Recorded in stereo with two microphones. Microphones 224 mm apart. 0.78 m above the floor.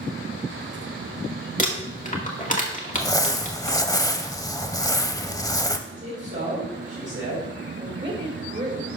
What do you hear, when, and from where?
1.6 s crumpling: 35° left (ahead or behind), 1.7 m
2.9 s crumpling: 15° left (ahead or behind), 0.6 m
5.9 s a man speaking: 50° right (ahead or behind), 3.5 m
7.8 s a woman speaking: 50° right (ahead or behind), 2.5 m